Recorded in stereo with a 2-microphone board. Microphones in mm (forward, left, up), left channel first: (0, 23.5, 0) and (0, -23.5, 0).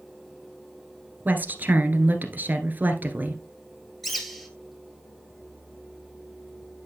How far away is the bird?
About 1.9 m.